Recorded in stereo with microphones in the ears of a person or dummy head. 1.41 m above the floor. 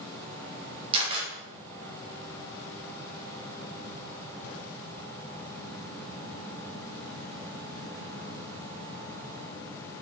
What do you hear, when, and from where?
0.9 s a camera shutter: 35° right (ahead or behind), 2.5 m